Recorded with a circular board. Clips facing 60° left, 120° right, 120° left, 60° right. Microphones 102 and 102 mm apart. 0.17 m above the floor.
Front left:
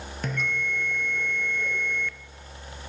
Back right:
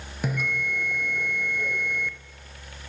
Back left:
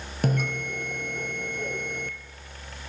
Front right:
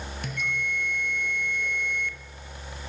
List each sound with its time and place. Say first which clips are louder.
0.2 s a bell: back right 2 dB, back left 6 dB; 160° left, 1.0 m